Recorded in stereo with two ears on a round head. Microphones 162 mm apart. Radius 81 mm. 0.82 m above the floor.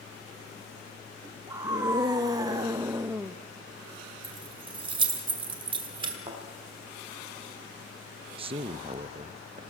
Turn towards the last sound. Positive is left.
turn(degrees=-30)  # may be behind; listen again after turning